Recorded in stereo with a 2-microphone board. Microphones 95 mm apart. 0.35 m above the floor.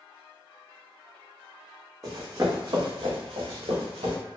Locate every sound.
2.0 s running footsteps: 30° right (ahead or behind), 1.1 m; by 4.2 s 80° right, 1.7 m